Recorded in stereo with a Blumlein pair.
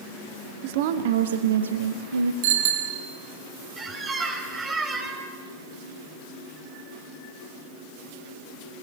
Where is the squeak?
15° right, 3 m.